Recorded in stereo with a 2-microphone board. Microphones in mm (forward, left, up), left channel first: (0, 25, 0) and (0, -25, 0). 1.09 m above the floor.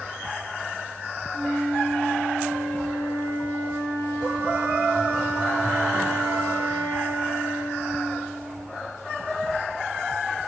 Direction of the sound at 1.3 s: 50° left (ahead or behind).